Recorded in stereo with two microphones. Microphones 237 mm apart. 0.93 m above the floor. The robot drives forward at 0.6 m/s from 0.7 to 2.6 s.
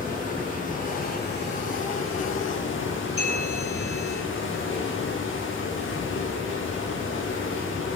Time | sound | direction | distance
0.0 | running water | 35° left (ahead or behind) | 1.2 m
3.2 | a bell | 65° right (ahead or behind) | 2.5 m